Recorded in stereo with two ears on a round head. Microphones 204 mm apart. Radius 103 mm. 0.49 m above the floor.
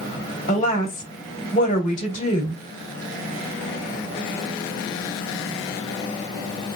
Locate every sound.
0.5 s a woman speaking: 35° left (ahead or behind), 1.9 m